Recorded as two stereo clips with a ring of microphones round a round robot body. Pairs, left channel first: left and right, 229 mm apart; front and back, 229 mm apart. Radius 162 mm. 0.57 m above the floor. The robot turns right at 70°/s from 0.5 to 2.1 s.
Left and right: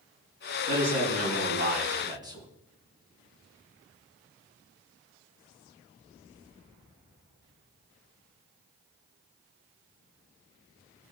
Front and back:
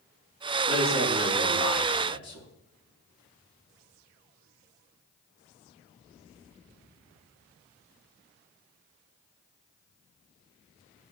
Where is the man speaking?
120° right, 4 m; by 2.5 s 20° right, 4 m.